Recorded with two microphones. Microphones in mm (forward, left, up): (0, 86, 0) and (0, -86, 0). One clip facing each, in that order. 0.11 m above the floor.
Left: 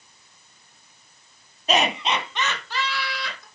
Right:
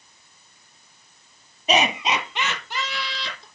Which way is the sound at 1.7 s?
10° right (ahead or behind).